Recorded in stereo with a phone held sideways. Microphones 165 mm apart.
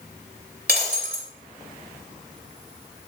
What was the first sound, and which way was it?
Breaking glass, 75° right (ahead or behind).